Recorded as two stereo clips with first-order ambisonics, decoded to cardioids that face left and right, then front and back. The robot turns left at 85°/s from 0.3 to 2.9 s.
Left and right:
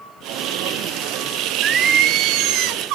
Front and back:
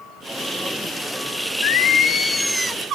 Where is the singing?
15° right, 0.8 m; by 3.0 s 125° right, 0.8 m.